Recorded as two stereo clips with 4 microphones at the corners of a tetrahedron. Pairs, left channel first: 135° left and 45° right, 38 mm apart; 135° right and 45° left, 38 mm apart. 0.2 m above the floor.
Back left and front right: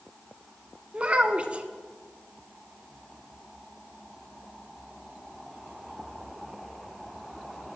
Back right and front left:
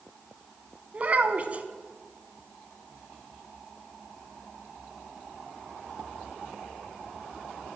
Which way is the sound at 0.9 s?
5° left.